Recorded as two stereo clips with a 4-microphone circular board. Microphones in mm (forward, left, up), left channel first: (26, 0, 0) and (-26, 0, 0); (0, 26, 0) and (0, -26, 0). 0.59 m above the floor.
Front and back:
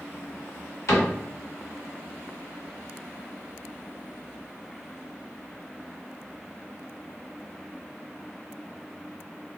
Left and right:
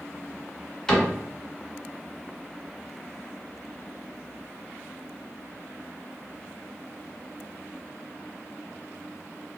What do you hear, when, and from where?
0.9 s a cupboard door: 10° left, 1.6 m